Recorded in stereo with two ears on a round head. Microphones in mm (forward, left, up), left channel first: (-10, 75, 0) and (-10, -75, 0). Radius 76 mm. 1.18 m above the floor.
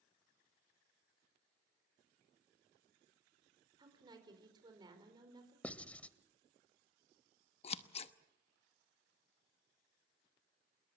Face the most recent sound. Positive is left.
turn(degrees=35)  # may be behind; listen again after turning